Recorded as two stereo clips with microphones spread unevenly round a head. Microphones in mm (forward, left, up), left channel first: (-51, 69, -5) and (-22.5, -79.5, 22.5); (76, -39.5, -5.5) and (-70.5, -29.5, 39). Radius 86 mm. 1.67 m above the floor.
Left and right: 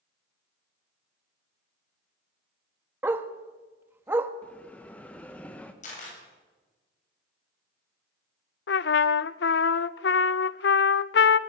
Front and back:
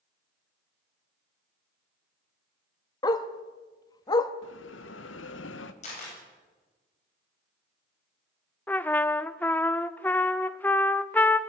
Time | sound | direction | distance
3.0 | a dog barking | 75° right | 1.1 m
4.4 | a bell | 15° left | 1.3 m
5.8 | a camera shutter | 50° left | 8 m
8.7 | a trumpet | 75° left | 0.5 m